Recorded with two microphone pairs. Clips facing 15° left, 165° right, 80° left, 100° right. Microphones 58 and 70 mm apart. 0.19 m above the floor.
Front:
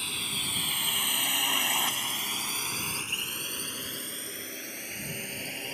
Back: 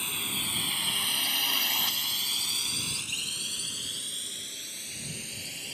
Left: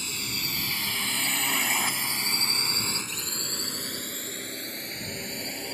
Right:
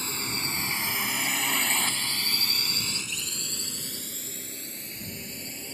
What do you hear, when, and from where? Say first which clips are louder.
0.0 s a drone: even, right 2 dB; 85° right; by 5.7 s 70° left